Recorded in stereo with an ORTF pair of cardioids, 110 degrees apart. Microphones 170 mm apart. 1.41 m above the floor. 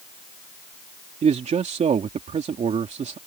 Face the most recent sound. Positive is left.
turn(degrees=-40)